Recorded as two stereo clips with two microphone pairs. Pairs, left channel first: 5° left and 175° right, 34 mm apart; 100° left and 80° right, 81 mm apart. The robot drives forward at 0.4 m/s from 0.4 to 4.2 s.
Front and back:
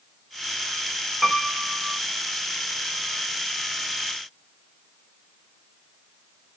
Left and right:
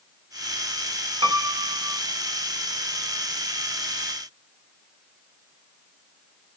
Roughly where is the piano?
Right.